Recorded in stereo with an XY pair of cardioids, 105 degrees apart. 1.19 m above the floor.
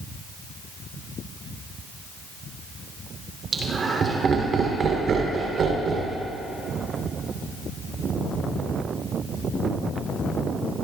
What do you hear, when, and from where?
3.5 s laughter: 35° right, 3 m; by 6.2 s 60° right, 3.5 m